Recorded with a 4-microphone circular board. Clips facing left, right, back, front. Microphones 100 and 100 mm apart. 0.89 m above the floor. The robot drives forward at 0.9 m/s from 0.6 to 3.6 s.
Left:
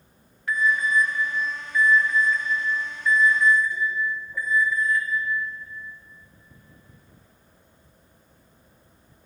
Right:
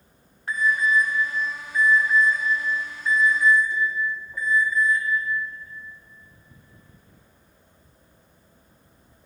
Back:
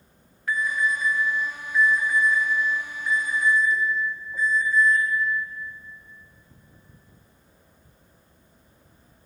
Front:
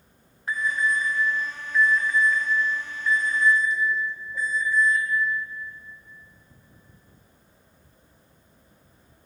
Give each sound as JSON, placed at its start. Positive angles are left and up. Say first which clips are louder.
{"t": 0.5, "sound": "an alarm", "louder": "right 1 dB, even", "azimuth_deg": -50, "distance_m": 1.7}